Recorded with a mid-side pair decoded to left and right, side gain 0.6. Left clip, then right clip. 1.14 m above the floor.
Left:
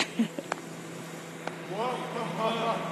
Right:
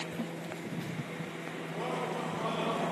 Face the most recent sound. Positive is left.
turn(degrees=50)